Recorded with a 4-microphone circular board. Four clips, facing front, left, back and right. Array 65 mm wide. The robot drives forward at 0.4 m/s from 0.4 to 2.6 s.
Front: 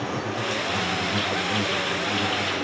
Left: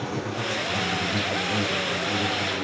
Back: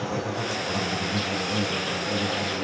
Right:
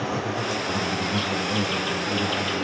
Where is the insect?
40° right, 2.5 m; by 2.6 s 55° right, 1.9 m.